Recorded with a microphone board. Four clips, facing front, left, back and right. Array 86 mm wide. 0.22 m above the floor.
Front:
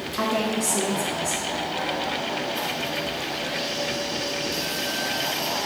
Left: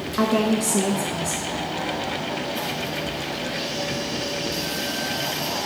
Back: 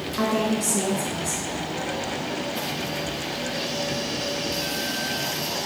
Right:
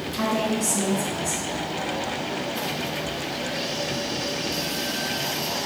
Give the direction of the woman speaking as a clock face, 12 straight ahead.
9 o'clock.